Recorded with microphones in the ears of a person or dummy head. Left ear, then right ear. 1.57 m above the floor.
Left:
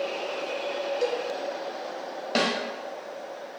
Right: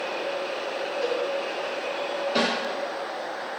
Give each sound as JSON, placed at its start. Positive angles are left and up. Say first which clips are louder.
{"t": 1.0, "sound": "a cowbell", "louder": "even", "side_deg": 60, "distance_m": 0.5}
{"t": 2.4, "sound": "a snare drum", "louder": "even", "side_deg": 70, "distance_m": 1.0}